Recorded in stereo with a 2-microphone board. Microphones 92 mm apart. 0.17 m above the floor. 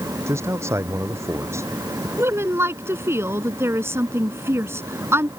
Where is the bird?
I don't hear a bird.